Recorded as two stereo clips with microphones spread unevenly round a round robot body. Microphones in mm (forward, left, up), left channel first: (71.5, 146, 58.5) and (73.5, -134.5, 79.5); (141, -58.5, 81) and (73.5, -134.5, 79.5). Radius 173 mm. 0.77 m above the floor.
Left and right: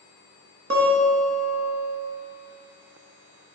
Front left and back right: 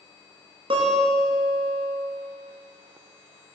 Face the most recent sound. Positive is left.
turn(degrees=-130)